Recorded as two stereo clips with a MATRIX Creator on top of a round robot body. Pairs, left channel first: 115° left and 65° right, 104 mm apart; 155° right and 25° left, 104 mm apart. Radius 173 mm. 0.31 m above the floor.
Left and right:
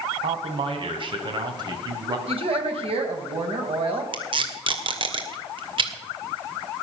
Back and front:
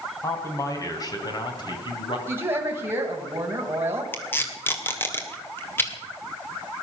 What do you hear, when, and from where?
0.2 s a man speaking: 95° right, 3.5 m; by 2.2 s 120° right, 3.5 m
2.3 s a woman speaking: 45° right, 3.5 m
4.1 s tape being pulled: 90° right, 2.5 m